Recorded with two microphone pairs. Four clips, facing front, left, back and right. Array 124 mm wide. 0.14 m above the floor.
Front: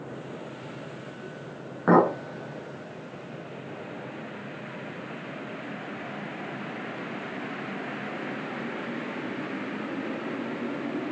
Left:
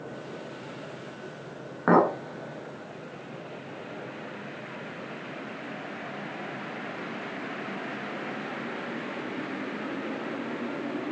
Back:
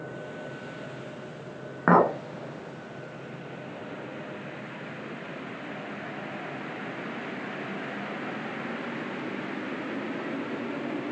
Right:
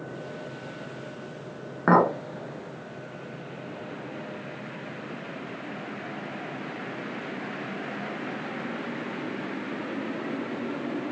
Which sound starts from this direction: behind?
A clink, at 1.9 s.